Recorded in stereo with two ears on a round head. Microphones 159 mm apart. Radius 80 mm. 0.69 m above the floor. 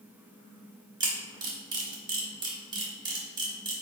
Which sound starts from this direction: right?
A camera shutter, at 1.0 s.